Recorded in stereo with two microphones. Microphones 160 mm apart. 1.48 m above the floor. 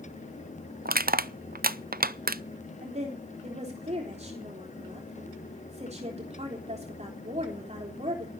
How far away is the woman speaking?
About 3.5 m.